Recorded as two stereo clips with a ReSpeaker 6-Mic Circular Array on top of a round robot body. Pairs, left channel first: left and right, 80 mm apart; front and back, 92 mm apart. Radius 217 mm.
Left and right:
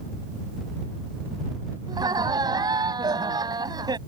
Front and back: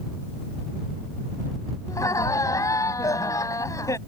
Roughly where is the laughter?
Ahead right.